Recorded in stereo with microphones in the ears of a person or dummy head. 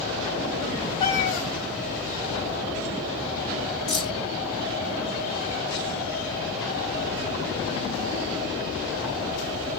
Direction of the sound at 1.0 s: 30° left (ahead or behind).